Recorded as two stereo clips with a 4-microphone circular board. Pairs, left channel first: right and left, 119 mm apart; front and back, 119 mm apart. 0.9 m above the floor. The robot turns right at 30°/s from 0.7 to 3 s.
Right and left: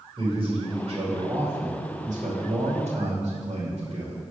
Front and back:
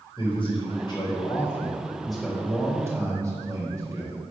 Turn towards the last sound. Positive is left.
turn(degrees=115)